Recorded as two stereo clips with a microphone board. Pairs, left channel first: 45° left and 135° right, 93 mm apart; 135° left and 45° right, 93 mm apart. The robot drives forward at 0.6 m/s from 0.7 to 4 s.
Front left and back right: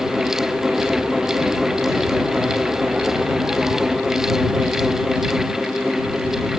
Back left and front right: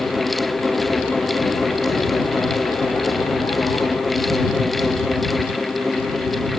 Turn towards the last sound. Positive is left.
No sound to turn to.